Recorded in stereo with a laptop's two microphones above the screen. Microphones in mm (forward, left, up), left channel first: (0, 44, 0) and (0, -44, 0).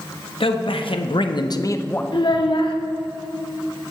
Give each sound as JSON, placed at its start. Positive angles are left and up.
{"t": 0.4, "sound": "a man speaking", "side_deg": 75, "distance_m": 1.1}
{"t": 2.1, "sound": "a child speaking", "side_deg": 60, "distance_m": 1.3}